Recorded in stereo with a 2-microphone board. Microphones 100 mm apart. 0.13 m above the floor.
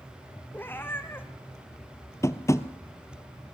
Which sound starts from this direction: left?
Tapping, at 2.2 s.